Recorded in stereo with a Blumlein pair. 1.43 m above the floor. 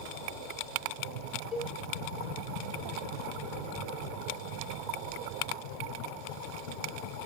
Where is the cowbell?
20° left, 2.5 m.